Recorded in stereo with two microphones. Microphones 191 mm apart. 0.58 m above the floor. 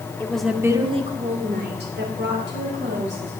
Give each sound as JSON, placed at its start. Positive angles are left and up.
{"t": 0.2, "sound": "a woman speaking", "side_deg": 10, "distance_m": 1.5}